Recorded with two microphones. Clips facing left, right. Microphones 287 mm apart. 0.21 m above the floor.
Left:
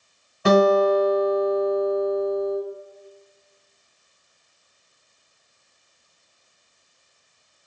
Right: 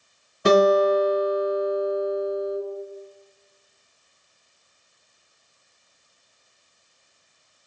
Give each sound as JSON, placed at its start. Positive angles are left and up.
{"t": 0.5, "sound": "a guitar", "side_deg": -15, "distance_m": 1.8}